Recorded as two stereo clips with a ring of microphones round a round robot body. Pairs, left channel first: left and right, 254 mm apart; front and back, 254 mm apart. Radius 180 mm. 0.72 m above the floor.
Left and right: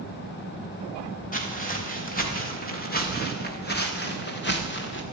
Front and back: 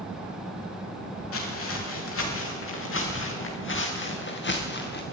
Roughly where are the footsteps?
Ahead left.